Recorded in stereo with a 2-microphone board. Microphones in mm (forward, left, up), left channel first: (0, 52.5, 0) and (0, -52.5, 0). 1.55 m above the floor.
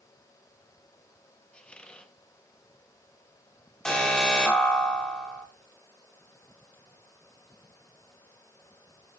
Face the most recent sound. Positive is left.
turn(degrees=5)  # may be behind; listen again after turning